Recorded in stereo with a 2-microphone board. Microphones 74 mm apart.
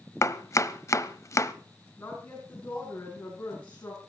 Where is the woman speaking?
20° left (ahead or behind), 6.5 m.